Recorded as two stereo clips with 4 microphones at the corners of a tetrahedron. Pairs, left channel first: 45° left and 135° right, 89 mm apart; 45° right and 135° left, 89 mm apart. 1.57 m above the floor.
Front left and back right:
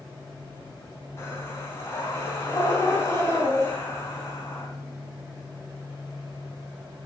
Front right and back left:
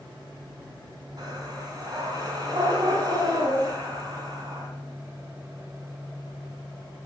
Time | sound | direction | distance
1.2 | breathing | 100° left | 3 m